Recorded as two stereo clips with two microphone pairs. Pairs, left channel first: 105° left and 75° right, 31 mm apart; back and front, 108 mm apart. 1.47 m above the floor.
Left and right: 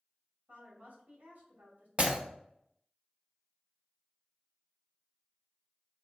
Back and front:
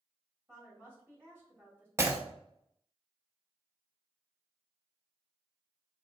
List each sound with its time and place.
0.5 s a woman speaking: 70° right, 2.5 m
2.0 s breaking glass: 55° right, 1.0 m